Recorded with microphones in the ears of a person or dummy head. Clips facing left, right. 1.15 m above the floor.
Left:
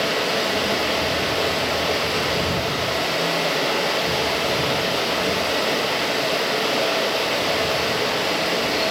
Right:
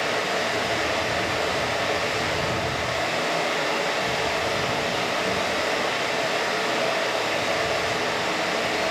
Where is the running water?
50° left (ahead or behind), 1.0 m.